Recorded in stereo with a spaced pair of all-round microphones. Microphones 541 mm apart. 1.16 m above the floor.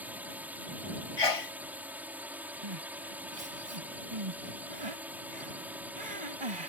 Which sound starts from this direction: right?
Crying, at 2.6 s.